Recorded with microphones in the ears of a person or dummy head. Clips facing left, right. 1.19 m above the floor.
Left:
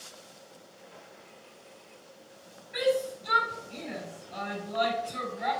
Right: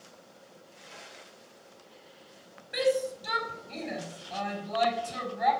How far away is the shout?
About 4.5 m.